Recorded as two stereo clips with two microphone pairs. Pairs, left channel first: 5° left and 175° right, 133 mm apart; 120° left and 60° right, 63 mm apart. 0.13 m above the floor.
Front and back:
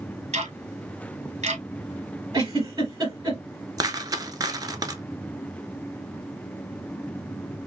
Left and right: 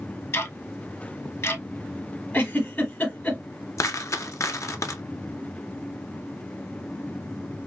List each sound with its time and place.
0.3 s ticking: 160° left, 1.4 m
2.3 s a giggle: 150° left, 2 m
3.8 s a dropped coin: 135° left, 0.7 m